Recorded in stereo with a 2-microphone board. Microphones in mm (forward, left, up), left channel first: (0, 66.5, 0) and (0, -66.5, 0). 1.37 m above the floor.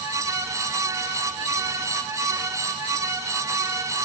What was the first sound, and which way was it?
Only background noise.